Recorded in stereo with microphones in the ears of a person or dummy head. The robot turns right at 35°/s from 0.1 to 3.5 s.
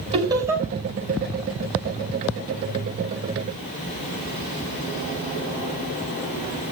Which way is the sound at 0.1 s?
25° right (ahead or behind).